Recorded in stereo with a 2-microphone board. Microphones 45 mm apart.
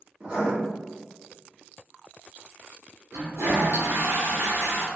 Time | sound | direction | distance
0.2 | writing | 30° right (ahead or behind) | 1.3 m
3.1 | a toilet flushing | 65° right (ahead or behind) | 0.9 m